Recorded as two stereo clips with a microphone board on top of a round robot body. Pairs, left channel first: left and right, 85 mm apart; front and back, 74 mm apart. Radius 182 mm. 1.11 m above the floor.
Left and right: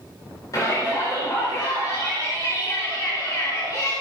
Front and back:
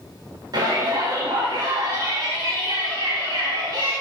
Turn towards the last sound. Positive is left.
turn(degrees=145)